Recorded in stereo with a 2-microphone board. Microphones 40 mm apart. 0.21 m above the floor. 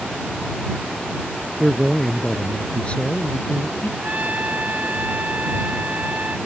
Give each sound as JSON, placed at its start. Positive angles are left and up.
{"t": 1.6, "sound": "a man speaking", "side_deg": -10}
{"t": 4.0, "sound": "a trumpet", "side_deg": -40}